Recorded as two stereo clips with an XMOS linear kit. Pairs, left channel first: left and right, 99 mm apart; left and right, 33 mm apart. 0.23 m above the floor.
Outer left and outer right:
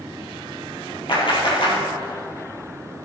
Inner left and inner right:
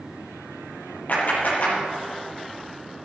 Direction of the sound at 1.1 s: 60° left (ahead or behind).